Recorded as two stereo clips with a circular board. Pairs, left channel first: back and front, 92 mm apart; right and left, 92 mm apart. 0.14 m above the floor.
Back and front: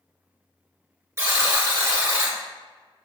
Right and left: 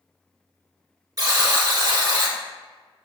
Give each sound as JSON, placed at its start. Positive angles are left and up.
{"t": 1.2, "sound": "a buzzer", "azimuth_deg": 50, "distance_m": 1.0}